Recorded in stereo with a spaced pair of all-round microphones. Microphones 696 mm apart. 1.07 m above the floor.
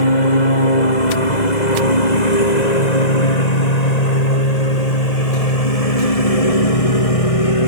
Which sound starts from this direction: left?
A lawn mower, at 0.0 s.